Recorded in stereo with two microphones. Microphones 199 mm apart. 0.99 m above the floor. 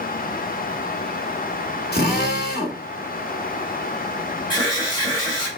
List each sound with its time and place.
1.9 s a drill: 55° left (ahead or behind), 1.7 m
4.5 s an alarm: 20° left (ahead or behind), 3.5 m